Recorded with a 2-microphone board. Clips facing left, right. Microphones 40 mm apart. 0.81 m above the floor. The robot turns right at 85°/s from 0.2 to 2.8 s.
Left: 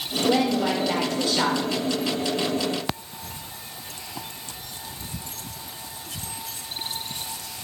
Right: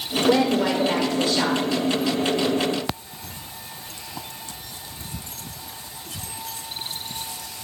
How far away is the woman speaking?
About 2.5 m.